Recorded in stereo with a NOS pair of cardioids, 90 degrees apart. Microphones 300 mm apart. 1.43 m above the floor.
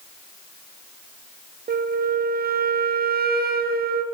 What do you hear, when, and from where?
1.7 s a flute: 35° right, 0.8 m